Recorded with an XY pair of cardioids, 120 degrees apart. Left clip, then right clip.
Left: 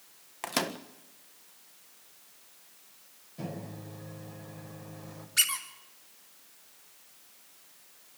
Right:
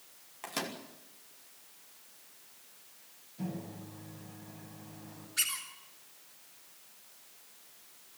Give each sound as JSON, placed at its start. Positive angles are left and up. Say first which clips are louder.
{"t": 0.4, "sound": "a microwave", "louder": "left 6 dB", "azimuth_deg": 45, "distance_m": 1.5}
{"t": 3.4, "sound": "a microwave", "louder": "left 2 dB", "azimuth_deg": 60, "distance_m": 5.5}
{"t": 5.4, "sound": "a squeak", "louder": "left 6 dB", "azimuth_deg": 50, "distance_m": 3.0}